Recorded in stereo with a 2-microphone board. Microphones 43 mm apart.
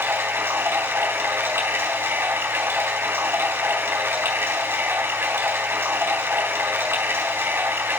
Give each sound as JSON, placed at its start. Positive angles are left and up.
{"t": 0.0, "sound": "running water", "side_deg": -55, "distance_m": 3.5}